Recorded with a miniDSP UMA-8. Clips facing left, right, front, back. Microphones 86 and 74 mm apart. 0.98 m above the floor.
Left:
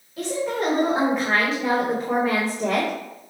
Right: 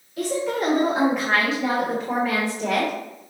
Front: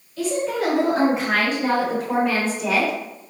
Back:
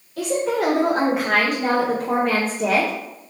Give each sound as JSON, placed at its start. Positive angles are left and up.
{"t": 0.2, "sound": "a woman speaking", "azimuth_deg": 180, "distance_m": 3.5}